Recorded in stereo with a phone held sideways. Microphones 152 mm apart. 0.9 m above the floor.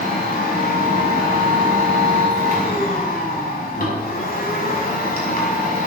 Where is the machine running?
80° left, 6 m.